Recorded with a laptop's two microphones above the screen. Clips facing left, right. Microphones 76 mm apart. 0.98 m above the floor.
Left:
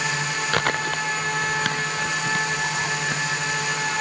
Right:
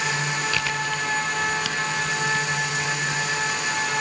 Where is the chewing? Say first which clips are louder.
Left 3 dB; 50° left (ahead or behind).